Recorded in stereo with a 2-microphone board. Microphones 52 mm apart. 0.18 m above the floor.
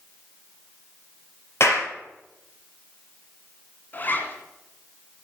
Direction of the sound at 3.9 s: 35° left (ahead or behind).